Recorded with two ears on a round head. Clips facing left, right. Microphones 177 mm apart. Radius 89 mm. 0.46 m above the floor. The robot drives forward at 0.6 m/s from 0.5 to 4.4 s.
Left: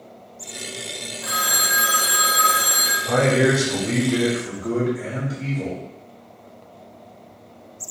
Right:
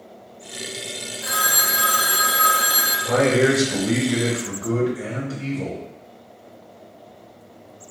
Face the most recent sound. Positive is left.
turn(degrees=0)  # may be behind; listen again after turning